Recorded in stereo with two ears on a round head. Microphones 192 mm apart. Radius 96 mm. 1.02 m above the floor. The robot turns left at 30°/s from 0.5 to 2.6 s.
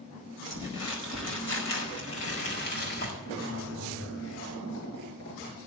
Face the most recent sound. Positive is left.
turn(degrees=60)  # may be behind; listen again after turning